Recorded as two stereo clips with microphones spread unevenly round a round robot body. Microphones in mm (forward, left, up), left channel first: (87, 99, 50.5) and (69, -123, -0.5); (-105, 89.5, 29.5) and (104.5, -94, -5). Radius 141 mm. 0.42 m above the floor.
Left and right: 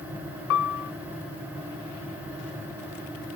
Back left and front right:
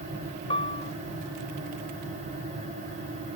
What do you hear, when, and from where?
0.5 s a piano: 65° left, 0.5 m